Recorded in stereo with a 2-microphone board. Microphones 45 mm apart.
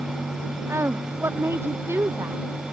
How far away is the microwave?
I don't hear a microwave.